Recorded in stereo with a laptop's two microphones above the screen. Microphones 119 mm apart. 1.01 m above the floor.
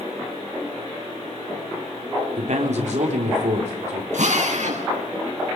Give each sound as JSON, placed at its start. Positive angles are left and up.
{"t": 2.4, "sound": "a man speaking", "side_deg": -75, "distance_m": 3.5}
{"t": 4.1, "sound": "a drill", "side_deg": -85, "distance_m": 9.0}